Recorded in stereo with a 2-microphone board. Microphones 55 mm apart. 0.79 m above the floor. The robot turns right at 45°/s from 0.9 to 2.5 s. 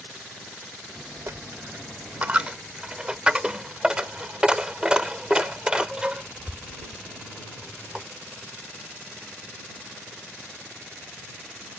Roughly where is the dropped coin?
Right.